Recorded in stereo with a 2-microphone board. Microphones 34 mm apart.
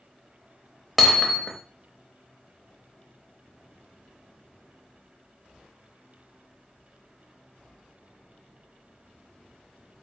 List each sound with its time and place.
1.0 s hammering: centre (ahead or behind), 0.5 m